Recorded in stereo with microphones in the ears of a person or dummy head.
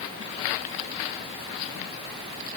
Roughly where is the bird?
No bird in this recording.